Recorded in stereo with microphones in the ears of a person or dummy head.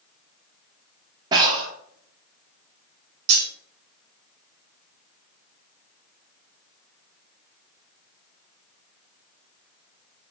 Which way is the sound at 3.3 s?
65° right (ahead or behind).